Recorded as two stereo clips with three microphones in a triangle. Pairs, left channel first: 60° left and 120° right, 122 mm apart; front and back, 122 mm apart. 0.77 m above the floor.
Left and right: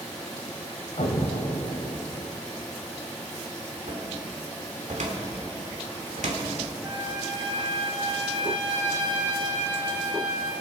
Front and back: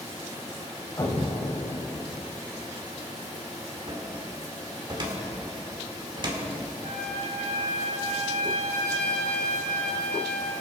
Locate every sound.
1.0 s an explosion: 55° left, 1.4 m
3.9 s a cupboard door: 130° right, 2 m
6.8 s a trumpet: 175° right, 3.5 m